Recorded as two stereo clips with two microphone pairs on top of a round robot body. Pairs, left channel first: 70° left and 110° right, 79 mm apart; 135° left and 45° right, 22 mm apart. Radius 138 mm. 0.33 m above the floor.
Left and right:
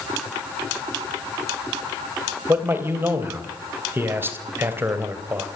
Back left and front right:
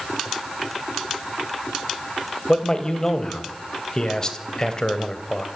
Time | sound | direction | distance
2.5 | a man speaking | 165° right | 3 m